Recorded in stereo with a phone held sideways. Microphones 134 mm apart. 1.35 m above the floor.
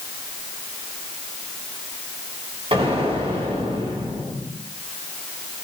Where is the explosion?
45° right (ahead or behind), 3.5 m.